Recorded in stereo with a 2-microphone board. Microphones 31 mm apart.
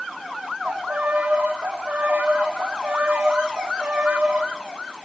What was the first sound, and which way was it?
A violin, 85° right.